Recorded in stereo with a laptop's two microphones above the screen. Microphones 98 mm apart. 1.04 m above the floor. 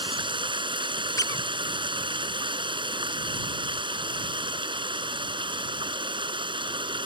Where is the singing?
I don't hear singing.